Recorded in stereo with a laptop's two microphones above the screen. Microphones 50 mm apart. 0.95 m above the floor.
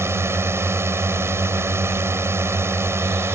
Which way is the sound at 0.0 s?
60° right (ahead or behind).